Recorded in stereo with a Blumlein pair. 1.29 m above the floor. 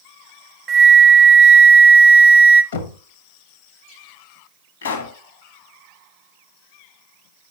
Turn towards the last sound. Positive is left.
turn(degrees=60)